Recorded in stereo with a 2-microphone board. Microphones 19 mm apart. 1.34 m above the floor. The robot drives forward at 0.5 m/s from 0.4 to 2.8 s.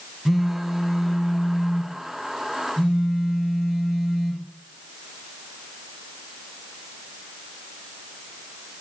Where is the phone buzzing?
10° right (ahead or behind), 0.6 m; by 4.4 s 5° right (ahead or behind), 1.8 m.